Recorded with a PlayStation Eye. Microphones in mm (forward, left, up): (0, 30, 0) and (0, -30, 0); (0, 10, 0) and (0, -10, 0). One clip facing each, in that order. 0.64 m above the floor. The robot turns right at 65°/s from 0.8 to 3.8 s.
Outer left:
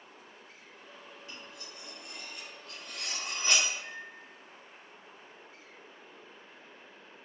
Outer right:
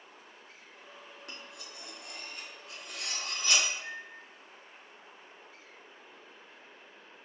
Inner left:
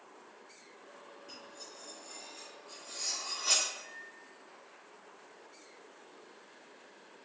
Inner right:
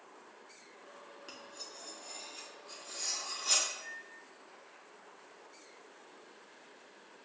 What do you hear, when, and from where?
1.3 s cutlery clinking: 65° right (ahead or behind), 0.5 m; by 3.7 s 45° left (ahead or behind), 0.5 m
3.8 s a microwave: 25° right (ahead or behind), 0.8 m